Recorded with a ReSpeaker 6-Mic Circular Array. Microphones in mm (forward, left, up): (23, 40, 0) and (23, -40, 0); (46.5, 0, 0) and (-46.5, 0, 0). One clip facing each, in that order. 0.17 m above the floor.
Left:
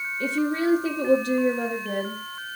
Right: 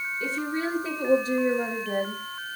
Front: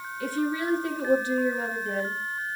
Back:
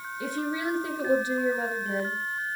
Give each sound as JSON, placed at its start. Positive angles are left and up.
{"t": 0.2, "sound": "a woman speaking", "azimuth_deg": 110, "distance_m": 4.5}